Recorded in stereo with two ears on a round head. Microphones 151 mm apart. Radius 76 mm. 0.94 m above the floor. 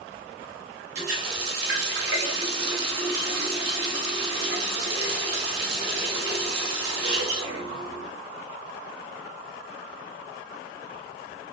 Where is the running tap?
65° right (ahead or behind), 1.0 m.